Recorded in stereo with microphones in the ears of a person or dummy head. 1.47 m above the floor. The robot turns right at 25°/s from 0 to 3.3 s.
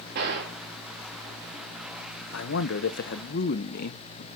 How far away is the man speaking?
About 1.0 m.